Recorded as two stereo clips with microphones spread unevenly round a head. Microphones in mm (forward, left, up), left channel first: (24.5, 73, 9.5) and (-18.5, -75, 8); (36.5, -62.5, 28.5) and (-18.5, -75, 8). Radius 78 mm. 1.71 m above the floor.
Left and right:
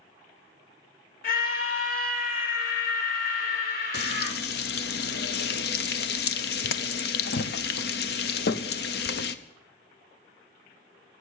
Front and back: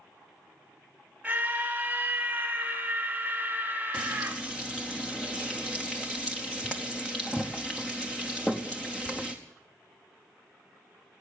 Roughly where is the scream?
Left.